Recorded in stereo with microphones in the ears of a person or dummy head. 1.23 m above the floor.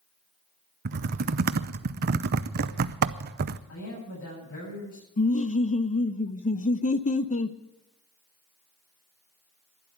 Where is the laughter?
35° left (ahead or behind), 0.7 m.